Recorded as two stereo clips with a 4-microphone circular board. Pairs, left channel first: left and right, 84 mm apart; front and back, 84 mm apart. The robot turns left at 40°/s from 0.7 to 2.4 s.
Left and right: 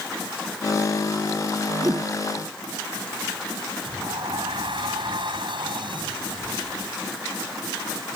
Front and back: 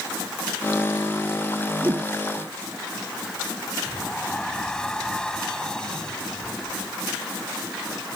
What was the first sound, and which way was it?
A whoosh, 130° right.